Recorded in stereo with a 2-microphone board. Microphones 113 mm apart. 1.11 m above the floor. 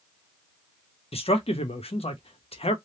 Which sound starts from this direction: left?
A man speaking, at 1.1 s.